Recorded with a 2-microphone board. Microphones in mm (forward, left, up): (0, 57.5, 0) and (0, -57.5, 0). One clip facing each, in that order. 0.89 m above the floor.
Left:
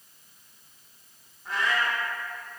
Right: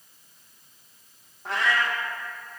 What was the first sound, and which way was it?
A cat meowing, 70° right (ahead or behind).